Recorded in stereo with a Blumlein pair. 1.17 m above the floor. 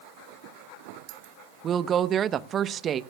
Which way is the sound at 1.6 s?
25° right.